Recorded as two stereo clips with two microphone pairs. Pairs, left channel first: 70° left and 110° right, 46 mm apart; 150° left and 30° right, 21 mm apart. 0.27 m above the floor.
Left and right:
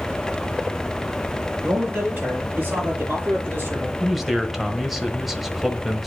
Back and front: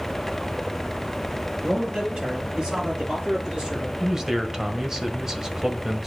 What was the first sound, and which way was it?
A man speaking, 65° right.